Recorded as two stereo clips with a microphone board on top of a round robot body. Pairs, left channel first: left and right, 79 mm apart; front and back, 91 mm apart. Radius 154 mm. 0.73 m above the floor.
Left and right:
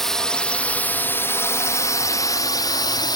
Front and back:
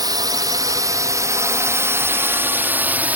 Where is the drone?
175° left; by 3.2 s 110° left.